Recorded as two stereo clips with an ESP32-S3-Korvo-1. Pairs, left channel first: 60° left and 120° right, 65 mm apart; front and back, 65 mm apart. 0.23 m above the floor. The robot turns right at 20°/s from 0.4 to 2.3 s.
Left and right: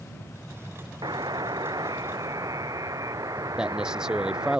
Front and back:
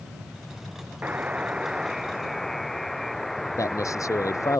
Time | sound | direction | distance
1.0 | a buzzer | 115° right | ?
3.6 | a man speaking | 40° right | ?